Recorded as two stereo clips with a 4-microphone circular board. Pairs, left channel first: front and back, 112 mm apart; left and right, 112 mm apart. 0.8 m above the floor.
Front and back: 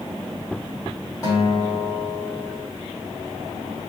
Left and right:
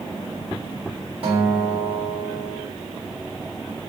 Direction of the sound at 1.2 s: 55° right.